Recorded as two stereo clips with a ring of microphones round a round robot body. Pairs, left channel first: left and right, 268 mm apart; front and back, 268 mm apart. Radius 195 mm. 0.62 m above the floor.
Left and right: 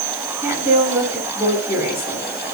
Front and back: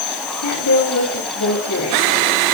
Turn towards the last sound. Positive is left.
turn(degrees=-10)